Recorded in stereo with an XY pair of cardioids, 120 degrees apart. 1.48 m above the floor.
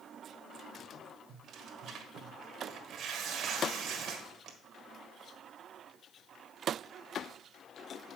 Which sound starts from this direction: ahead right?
Tearing paper, at 1.3 s.